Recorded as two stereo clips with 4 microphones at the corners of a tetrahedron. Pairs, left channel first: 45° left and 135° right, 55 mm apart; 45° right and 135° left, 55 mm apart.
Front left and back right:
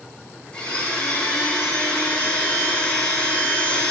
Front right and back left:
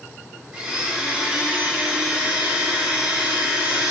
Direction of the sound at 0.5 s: 85° left.